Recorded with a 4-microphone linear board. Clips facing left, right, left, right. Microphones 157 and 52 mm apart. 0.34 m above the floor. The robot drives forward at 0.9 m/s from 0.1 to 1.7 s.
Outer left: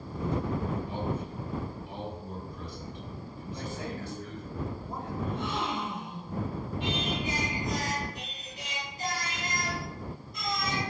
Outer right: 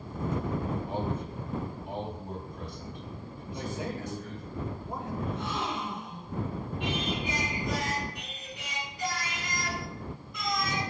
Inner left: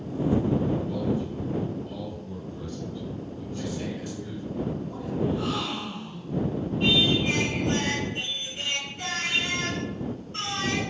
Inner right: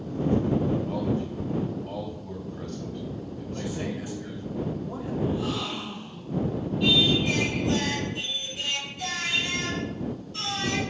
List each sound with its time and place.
0.9 s a man speaking: 50° right (ahead or behind), 2.5 m; by 4.5 s 55° right (ahead or behind), 2 m
3.5 s a man speaking: 20° right (ahead or behind), 1.4 m
5.2 s a gasp: 60° left (ahead or behind), 2 m
6.8 s singing: 45° left (ahead or behind), 3.5 m